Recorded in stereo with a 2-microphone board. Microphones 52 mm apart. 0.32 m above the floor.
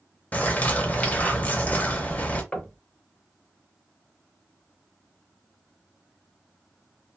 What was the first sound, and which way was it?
A bird, 30° left (ahead or behind).